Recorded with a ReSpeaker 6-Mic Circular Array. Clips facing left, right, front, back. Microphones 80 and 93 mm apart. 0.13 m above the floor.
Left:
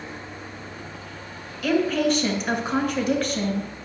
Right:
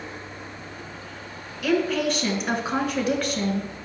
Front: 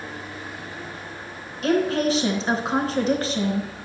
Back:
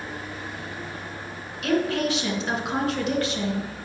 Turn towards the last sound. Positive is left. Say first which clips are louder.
# left 1 dB, front 3 dB
turn(degrees=-5)